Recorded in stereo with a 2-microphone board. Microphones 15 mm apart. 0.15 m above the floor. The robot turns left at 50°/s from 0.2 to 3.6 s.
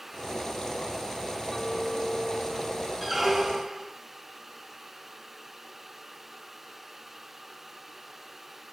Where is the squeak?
10° right (ahead or behind), 0.6 m; by 3.9 s 30° right (ahead or behind), 0.6 m.